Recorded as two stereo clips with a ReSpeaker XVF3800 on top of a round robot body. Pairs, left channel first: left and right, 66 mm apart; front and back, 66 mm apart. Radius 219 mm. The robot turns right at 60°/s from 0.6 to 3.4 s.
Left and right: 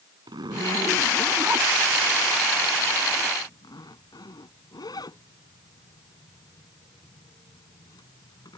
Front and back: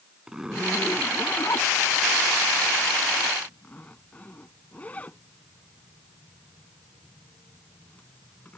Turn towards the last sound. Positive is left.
turn(degrees=70)